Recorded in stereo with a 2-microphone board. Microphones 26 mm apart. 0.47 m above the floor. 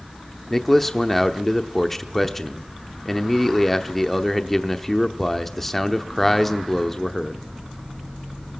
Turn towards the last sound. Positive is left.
turn(degrees=10)  # may be behind; listen again after turning